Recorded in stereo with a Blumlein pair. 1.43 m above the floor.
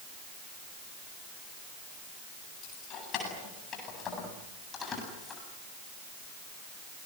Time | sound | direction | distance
2.6 | keys jangling | 35° left | 9 m